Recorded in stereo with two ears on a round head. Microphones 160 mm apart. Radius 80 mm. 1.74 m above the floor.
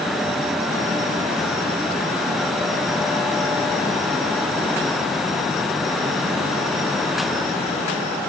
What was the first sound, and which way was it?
Only background noise.